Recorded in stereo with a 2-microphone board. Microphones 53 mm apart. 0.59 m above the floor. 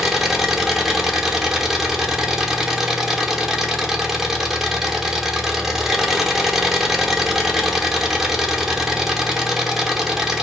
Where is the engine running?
10° right (ahead or behind), 0.8 m.